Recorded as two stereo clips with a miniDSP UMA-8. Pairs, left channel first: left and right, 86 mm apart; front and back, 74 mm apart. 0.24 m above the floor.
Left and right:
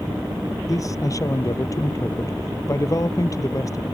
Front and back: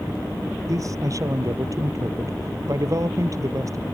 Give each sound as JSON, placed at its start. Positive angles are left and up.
{"t": 0.7, "sound": "a man speaking", "azimuth_deg": 140}